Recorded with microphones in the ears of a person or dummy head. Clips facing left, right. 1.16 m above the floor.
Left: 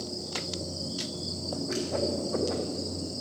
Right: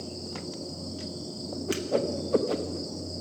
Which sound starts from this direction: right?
A whoosh, at 1.7 s.